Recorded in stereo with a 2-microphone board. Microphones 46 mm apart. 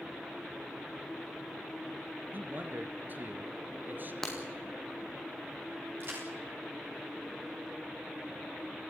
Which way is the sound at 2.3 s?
45° right (ahead or behind).